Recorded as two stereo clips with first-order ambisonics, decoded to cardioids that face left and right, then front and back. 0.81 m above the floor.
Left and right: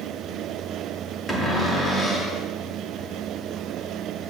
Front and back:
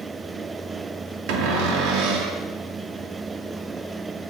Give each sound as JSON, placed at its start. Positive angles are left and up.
{"t": 1.3, "sound": "a cupboard door", "azimuth_deg": 170, "distance_m": 1.1}